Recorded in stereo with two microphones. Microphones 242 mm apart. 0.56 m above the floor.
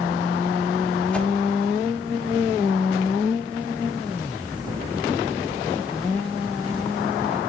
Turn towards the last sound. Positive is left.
turn(degrees=5)  # may be behind; listen again after turning